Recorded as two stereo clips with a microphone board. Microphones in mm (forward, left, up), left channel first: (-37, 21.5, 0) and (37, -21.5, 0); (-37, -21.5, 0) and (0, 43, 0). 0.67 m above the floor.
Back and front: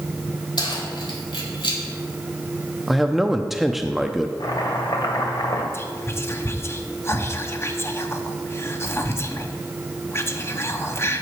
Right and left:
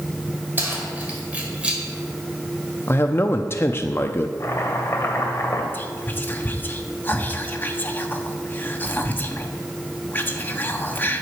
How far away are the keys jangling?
About 2.5 m.